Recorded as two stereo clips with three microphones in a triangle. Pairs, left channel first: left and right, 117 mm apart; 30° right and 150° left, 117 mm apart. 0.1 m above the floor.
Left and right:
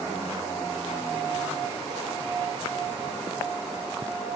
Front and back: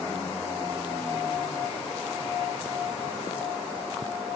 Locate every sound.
Only background noise.